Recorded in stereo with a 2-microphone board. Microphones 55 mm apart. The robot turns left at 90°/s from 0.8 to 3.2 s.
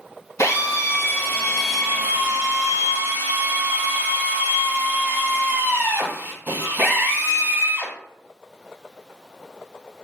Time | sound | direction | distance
0.4 | a drill | 75° left | 2 m